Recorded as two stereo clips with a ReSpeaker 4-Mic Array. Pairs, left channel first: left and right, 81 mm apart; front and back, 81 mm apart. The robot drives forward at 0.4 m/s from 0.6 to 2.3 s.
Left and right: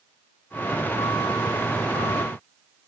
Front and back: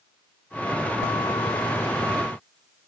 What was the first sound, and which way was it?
Only background noise.